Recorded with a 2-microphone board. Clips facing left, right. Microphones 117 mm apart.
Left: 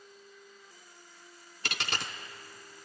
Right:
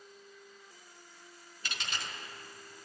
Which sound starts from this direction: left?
A dropped coin, at 1.6 s.